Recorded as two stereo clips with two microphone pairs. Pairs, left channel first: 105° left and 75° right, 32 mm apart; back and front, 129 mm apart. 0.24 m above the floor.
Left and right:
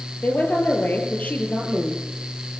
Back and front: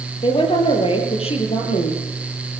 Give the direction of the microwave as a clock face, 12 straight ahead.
No microwave in this recording.